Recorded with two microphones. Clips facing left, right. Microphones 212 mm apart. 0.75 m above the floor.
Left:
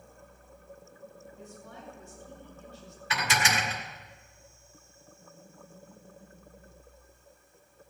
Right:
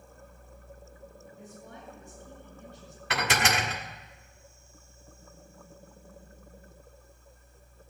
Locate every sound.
1.4 s a woman speaking: 10° right (ahead or behind), 6.5 m
3.1 s dishes clattering: 65° right (ahead or behind), 1.3 m